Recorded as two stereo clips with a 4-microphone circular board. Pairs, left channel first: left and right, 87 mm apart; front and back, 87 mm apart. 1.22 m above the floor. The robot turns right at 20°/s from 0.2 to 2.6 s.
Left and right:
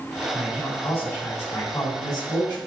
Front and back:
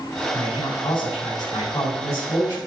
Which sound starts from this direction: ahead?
A man speaking, at 0.3 s.